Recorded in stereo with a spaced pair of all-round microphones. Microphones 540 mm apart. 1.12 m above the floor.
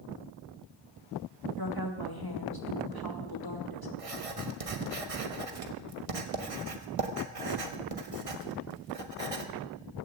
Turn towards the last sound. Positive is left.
turn(degrees=-85)